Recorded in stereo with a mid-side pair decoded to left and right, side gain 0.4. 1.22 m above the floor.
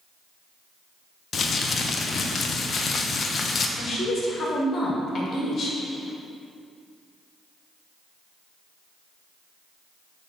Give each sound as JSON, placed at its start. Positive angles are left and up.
{"t": 1.3, "sound": "crumpling", "azimuth_deg": 50, "distance_m": 0.9}
{"t": 3.8, "sound": "a woman speaking", "azimuth_deg": 60, "distance_m": 2.0}